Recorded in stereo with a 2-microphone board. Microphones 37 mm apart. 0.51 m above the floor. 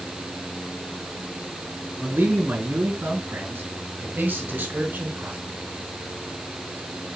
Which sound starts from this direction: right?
A man speaking, at 2.0 s.